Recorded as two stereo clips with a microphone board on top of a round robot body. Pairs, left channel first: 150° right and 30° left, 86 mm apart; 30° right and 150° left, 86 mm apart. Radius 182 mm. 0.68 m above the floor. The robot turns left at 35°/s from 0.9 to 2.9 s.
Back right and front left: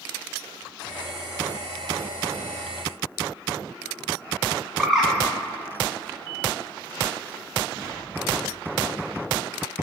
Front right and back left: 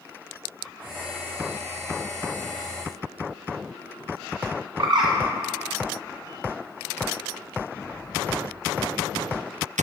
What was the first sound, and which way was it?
A bird, 115° left.